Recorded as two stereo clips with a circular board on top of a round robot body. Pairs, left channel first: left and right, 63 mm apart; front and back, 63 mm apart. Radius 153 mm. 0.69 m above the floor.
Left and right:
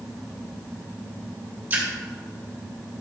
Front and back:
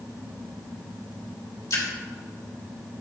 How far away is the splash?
About 2.5 m.